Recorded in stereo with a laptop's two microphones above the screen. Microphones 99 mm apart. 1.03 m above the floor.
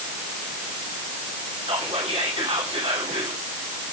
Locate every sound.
1.6 s whispering: 75° right (ahead or behind), 3 m